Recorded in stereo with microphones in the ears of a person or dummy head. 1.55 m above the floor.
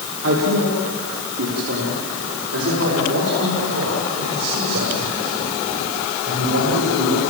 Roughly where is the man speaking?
Right.